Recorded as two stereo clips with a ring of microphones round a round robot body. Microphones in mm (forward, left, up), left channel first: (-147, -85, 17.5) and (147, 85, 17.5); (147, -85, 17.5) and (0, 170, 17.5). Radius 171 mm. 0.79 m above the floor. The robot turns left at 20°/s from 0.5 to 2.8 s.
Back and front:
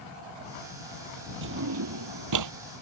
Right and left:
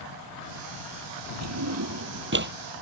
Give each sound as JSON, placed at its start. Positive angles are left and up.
{"t": 1.4, "sound": "a drawer", "azimuth_deg": 85}